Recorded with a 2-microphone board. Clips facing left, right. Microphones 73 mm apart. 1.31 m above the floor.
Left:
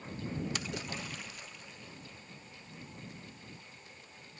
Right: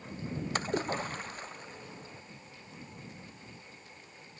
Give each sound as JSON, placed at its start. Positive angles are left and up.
{"t": 0.6, "sound": "a splash", "side_deg": -40}